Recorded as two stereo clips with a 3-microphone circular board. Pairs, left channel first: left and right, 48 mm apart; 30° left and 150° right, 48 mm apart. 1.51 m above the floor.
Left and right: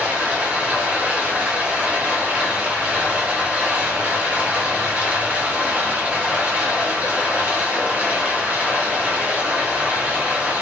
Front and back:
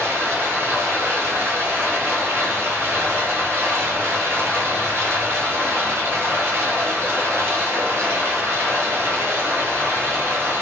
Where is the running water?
140° right, 0.9 m.